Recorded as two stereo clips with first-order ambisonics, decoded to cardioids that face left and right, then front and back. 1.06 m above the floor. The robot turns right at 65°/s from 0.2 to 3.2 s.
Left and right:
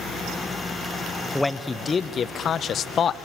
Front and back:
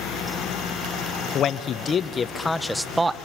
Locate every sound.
1.4 s a man speaking: 5° left, 0.5 m; by 3.2 s 120° left, 0.5 m